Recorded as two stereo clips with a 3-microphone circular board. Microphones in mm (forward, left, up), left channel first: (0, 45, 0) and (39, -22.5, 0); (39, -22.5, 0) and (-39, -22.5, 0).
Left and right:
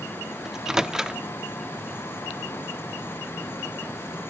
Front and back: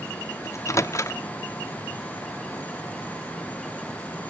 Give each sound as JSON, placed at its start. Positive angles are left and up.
{"t": 0.5, "sound": "a microwave", "azimuth_deg": 20, "distance_m": 0.7}